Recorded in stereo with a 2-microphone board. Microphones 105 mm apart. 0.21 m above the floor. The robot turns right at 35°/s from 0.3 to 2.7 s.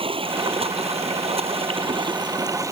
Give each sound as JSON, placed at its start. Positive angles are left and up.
{"t": 0.0, "sound": "running water", "azimuth_deg": -115}